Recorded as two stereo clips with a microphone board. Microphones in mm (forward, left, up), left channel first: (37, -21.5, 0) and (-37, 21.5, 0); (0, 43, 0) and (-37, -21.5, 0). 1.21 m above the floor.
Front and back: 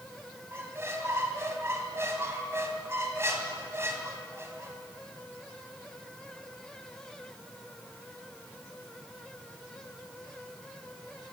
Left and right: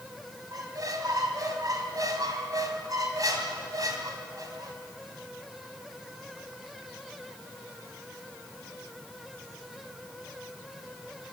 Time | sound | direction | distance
0.5 | a squeak | 155° right | 3 m